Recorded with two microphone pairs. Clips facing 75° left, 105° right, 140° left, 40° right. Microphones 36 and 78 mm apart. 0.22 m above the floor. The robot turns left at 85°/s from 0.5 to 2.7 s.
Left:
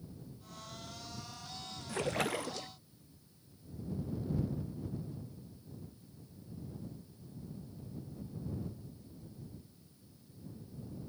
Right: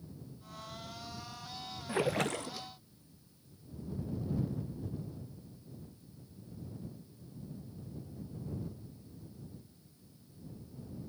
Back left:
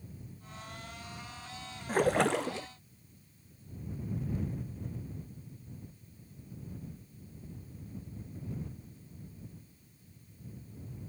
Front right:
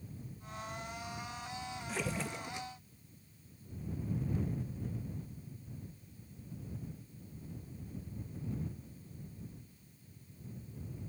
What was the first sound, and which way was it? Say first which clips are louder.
A splash: right 2 dB, back left 13 dB; 175° right.